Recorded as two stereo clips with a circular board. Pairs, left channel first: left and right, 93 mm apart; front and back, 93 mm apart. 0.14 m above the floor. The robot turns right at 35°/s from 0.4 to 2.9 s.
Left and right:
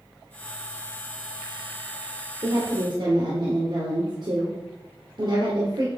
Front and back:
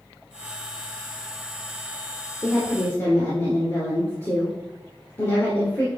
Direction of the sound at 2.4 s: 85° right.